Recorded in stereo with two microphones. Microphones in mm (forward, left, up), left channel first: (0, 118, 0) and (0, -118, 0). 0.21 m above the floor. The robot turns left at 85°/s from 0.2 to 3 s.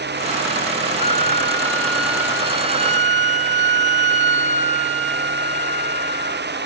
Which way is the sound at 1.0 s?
30° left (ahead or behind).